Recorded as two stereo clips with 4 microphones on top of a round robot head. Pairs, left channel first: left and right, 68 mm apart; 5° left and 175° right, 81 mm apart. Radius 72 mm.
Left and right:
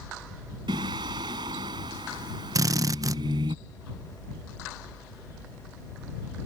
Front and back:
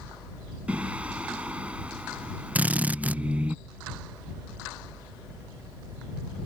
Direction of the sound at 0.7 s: 95° right.